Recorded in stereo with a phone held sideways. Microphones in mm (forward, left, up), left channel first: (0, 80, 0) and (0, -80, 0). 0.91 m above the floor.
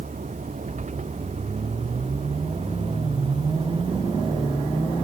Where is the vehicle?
55° right (ahead or behind); by 5.0 s 35° right (ahead or behind).